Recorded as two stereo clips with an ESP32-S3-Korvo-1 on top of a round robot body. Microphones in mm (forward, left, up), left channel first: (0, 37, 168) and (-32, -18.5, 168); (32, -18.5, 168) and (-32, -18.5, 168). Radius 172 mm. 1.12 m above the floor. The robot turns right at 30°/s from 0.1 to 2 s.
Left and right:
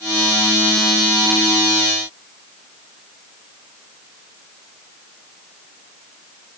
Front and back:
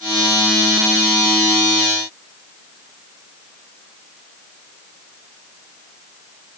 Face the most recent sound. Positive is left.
No sound to turn to.